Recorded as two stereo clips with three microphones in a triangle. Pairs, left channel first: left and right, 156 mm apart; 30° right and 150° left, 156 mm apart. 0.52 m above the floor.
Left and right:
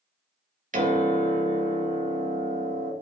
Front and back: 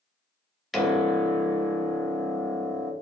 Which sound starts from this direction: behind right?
A piano, at 0.7 s.